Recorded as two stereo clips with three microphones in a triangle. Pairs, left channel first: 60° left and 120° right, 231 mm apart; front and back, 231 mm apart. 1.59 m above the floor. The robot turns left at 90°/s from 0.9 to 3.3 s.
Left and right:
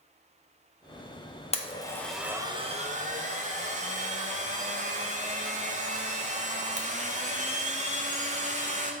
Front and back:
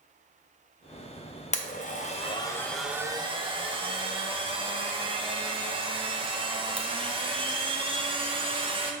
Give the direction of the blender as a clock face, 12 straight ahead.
11 o'clock.